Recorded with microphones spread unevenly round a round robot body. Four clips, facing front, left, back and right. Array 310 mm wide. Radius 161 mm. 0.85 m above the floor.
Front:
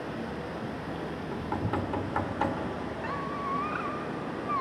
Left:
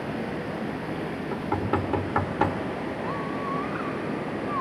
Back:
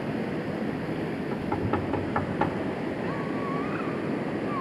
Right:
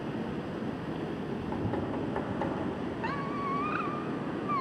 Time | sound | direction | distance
0.0 | running water | 175° left | 1.5 m
1.3 | knocking | 105° left | 2.0 m
3.0 | a squeak | 115° right | 0.5 m